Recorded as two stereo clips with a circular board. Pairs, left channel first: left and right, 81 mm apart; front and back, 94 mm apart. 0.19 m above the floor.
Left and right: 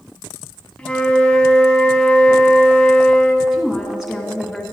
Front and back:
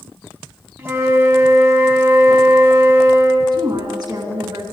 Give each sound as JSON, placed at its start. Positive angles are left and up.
{"t": 0.8, "sound": "a flute", "azimuth_deg": 150, "distance_m": 1.3}
{"t": 3.5, "sound": "a woman speaking", "azimuth_deg": -175, "distance_m": 2.0}